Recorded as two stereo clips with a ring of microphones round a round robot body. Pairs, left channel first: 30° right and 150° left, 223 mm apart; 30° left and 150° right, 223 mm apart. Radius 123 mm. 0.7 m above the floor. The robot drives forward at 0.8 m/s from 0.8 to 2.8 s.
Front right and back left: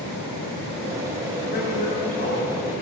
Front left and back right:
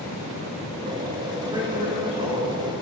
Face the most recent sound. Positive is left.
turn(degrees=-95)